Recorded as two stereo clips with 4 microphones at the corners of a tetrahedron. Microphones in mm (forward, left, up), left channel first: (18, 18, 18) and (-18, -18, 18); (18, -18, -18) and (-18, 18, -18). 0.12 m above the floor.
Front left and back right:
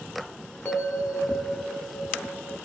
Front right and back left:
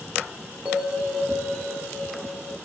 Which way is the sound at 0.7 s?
80° left.